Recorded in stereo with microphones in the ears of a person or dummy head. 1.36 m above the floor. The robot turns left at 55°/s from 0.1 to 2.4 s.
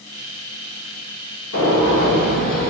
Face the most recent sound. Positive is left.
turn(degrees=50)